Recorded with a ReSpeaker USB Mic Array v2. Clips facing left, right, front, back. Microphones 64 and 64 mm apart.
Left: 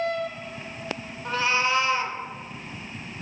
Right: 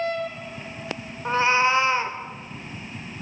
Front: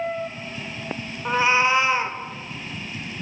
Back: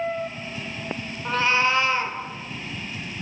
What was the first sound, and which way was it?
A cat meowing, 55° right.